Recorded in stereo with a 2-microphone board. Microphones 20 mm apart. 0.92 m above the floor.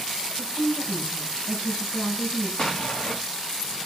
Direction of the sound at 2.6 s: 35° left (ahead or behind).